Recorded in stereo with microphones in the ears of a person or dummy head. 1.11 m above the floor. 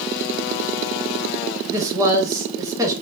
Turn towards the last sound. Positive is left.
turn(degrees=-20)  # may be behind; listen again after turning